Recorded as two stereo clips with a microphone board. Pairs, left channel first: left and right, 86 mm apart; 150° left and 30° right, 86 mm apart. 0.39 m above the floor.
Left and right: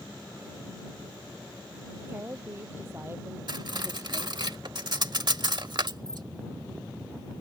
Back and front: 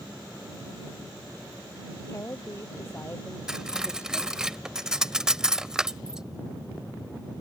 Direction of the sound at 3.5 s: 110° right.